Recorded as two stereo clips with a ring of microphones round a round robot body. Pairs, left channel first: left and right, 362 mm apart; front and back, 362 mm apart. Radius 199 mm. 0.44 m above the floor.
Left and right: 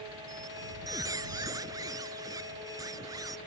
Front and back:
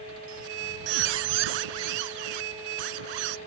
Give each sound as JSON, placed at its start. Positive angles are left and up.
{"t": 0.3, "sound": "a squeak", "azimuth_deg": -170}